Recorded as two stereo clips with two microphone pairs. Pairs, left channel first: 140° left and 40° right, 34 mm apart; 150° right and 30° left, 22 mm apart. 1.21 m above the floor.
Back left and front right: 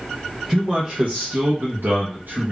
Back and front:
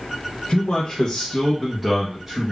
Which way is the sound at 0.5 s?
115° right.